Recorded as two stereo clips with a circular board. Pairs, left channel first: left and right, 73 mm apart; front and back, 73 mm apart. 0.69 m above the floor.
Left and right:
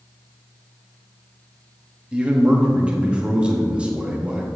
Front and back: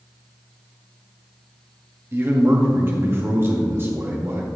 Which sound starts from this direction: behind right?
A man speaking, at 2.1 s.